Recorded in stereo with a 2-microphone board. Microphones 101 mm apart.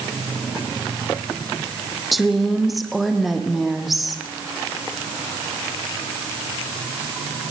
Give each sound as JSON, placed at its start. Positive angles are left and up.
{"t": 2.1, "sound": "a woman speaking", "side_deg": 0, "distance_m": 4.0}